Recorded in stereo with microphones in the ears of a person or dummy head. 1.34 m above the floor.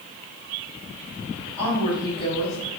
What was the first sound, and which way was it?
A woman speaking, 10° left (ahead or behind).